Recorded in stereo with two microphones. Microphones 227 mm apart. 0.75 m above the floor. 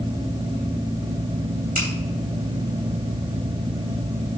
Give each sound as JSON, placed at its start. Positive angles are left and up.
{"t": 1.8, "sound": "a finger snap", "side_deg": -35, "distance_m": 3.0}